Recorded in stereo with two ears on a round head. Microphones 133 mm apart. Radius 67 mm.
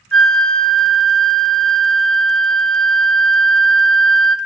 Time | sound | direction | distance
0.1 | a flute | 5° left (ahead or behind) | 0.7 m